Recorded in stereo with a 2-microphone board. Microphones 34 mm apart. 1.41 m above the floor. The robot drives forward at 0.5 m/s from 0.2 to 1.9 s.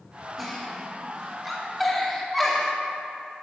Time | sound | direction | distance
0.4 | a giggle | centre (ahead or behind) | 2.5 m